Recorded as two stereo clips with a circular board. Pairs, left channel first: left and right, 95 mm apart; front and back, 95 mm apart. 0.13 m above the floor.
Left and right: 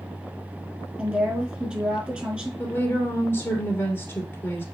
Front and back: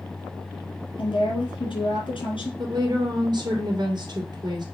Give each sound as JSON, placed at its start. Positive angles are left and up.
{"t": 1.0, "sound": "a woman speaking", "azimuth_deg": -15, "distance_m": 3.5}
{"t": 2.6, "sound": "a woman speaking", "azimuth_deg": 155, "distance_m": 2.0}